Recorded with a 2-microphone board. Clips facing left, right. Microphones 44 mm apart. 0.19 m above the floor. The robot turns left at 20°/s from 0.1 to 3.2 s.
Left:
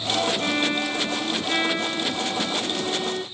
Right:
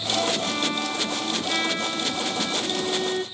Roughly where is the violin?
Ahead left.